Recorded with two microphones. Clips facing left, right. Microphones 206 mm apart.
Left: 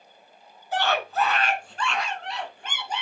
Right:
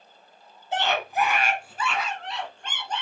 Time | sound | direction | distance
0.7 | a scream | 25° right (ahead or behind) | 1.4 m